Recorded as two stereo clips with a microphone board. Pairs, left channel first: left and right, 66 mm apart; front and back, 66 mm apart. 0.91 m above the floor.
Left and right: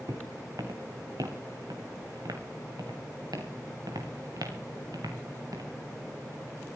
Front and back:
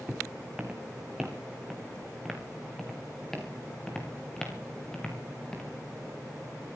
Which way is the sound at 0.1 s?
105° right.